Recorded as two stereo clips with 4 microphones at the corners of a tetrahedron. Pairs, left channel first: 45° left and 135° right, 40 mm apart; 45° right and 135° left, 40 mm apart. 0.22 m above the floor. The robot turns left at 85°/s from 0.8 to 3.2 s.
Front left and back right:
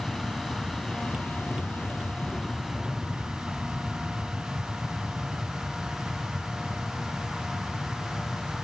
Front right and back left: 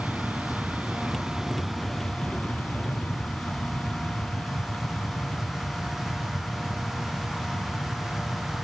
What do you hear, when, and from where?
0.0 s an aircraft: 120° left; by 8.6 s 85° right